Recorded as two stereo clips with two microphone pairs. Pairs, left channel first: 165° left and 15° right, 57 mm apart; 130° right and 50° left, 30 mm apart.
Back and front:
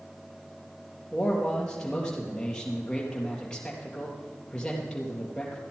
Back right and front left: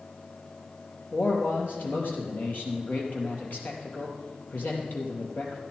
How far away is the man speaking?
About 4 m.